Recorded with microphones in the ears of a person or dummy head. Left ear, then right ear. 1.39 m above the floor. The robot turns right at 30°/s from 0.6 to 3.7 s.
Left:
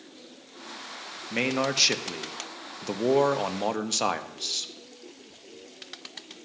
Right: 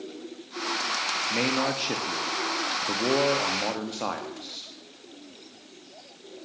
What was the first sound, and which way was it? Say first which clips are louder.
A man speaking: left 4 dB; 25° left.